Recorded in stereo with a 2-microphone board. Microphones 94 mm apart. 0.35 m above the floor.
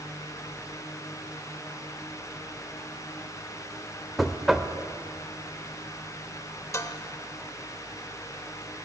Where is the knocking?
5° right (ahead or behind), 0.5 m.